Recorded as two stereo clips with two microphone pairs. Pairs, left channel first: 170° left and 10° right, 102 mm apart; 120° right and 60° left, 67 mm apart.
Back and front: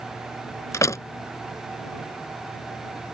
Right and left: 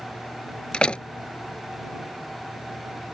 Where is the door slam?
175° left.